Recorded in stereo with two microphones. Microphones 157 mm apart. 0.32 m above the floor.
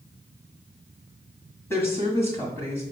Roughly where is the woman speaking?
Centre.